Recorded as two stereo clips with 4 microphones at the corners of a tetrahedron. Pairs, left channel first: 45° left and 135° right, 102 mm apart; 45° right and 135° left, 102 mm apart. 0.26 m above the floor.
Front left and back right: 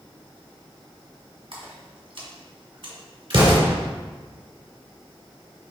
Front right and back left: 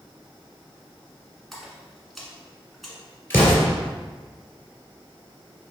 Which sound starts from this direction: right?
An explosion, at 3.3 s.